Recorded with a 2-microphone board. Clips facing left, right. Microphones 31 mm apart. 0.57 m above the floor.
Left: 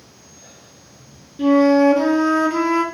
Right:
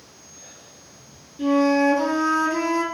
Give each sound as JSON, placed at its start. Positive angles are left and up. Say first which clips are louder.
{"t": 1.4, "sound": "a flute", "louder": "left 5 dB", "side_deg": 30, "distance_m": 0.5}